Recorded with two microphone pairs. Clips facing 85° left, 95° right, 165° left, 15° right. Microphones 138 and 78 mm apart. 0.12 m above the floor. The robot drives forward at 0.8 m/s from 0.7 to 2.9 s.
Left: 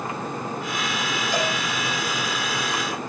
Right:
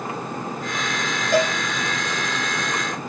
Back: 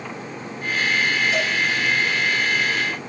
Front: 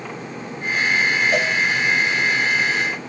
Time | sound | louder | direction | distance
1.3 | a cowbell | right 7 dB, front 3 dB | 55° right | 8.5 m